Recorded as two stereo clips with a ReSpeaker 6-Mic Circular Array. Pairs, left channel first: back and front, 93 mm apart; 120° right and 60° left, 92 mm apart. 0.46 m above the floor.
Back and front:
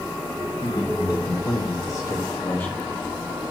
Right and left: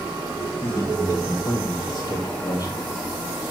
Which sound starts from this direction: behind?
A man speaking, at 0.6 s.